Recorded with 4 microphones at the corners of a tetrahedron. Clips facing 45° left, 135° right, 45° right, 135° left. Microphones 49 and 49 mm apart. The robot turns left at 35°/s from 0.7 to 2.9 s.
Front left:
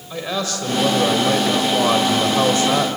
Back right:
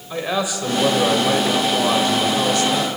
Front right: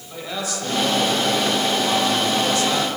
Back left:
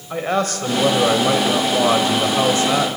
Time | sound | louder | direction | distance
0.1 | a man speaking | back right 2 dB, back left 8 dB | 150° left | 2 m